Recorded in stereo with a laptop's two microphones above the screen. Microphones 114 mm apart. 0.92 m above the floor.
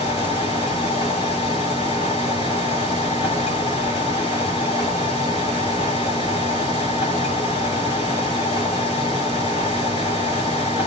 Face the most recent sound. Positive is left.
turn(degrees=50)  # may be behind; listen again after turning